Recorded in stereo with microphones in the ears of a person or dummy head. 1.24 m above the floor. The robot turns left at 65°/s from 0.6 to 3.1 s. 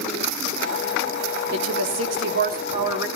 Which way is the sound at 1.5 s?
65° right.